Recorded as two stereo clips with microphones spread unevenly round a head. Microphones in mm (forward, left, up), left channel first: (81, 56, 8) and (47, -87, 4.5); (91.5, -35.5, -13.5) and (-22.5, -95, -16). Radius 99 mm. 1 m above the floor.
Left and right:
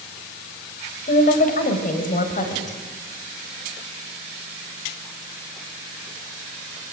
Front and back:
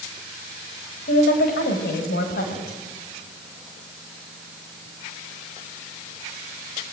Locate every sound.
1.1 s a woman speaking: 45° left, 4.5 m; by 2.8 s 40° left, 5.5 m